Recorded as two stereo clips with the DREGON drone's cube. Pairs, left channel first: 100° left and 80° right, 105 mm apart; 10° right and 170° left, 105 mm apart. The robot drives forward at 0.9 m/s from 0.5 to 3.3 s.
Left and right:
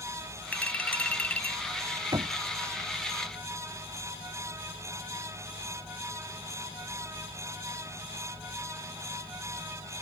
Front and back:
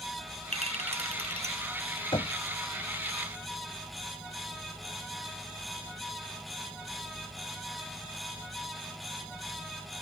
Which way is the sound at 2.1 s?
40° right.